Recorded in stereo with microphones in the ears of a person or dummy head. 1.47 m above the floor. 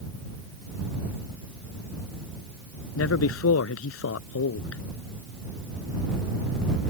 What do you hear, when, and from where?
3.0 s a man speaking: 85° left